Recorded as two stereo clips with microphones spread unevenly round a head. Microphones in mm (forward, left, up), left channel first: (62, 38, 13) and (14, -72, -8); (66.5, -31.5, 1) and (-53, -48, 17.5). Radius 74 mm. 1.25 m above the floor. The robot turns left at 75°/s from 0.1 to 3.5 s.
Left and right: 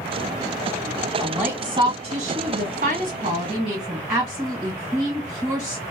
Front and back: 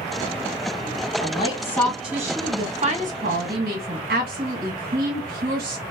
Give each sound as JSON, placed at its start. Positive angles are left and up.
{"t": 1.2, "sound": "a woman speaking", "azimuth_deg": -20, "distance_m": 1.6}